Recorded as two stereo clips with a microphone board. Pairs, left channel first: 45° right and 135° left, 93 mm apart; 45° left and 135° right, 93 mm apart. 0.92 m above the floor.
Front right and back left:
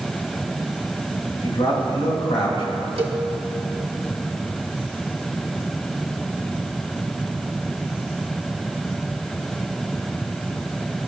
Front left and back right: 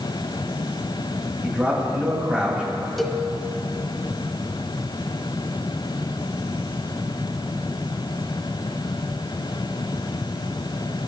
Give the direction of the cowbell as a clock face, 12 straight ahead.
8 o'clock.